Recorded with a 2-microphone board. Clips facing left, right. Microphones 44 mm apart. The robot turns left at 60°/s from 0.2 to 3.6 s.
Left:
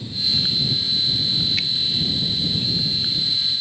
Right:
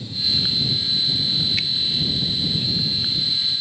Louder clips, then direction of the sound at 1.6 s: Even; centre (ahead or behind).